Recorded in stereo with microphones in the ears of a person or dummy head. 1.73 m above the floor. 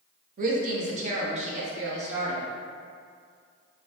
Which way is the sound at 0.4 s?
50° right (ahead or behind).